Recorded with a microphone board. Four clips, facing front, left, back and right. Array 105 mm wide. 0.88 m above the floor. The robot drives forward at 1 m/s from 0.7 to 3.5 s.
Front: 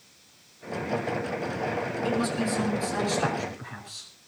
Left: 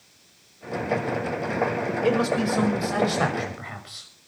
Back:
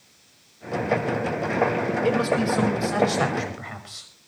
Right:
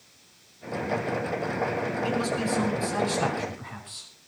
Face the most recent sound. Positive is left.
turn(degrees=140)